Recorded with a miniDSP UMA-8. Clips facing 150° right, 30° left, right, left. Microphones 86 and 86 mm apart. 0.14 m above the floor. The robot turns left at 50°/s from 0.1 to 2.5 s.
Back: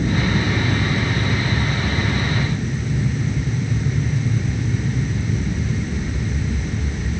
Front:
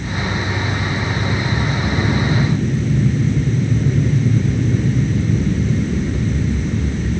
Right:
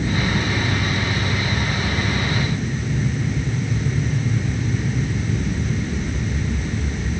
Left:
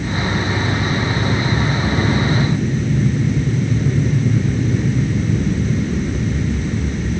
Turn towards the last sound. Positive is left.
turn(degrees=50)